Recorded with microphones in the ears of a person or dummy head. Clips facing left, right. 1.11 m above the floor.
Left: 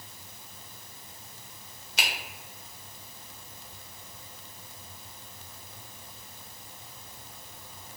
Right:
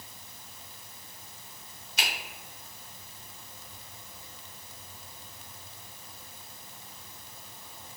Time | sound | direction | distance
2.0 | a finger snap | 55° left (ahead or behind) | 0.9 m